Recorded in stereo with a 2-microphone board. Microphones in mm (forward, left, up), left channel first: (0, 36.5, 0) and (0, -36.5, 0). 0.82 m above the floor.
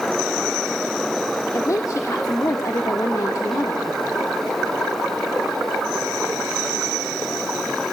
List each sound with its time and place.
1.5 s a woman speaking: 50° left (ahead or behind), 1.5 m